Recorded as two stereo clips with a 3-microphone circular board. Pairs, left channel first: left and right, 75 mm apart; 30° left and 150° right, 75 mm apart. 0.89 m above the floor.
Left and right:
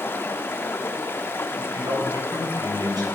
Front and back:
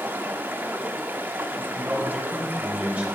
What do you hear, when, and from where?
0.0 s running water: 145° left, 0.9 m
1.7 s a man speaking: 80° right, 4 m